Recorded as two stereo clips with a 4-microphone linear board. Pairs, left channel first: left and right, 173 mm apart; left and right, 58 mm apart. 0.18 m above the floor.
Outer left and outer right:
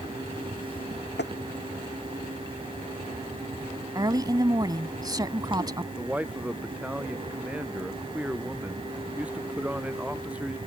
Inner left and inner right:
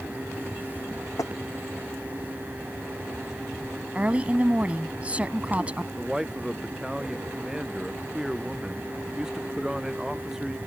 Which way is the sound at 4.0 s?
25° right (ahead or behind).